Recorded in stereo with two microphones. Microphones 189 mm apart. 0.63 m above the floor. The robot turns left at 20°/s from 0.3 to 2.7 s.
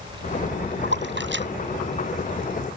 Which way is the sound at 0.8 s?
75° right (ahead or behind).